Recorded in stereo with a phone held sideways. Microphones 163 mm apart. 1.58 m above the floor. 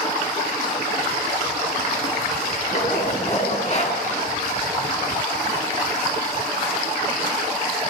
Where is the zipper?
45° left (ahead or behind), 7 m.